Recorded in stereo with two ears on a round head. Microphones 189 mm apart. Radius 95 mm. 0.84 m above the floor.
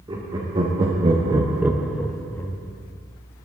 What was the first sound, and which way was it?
Laughter, 25° right (ahead or behind).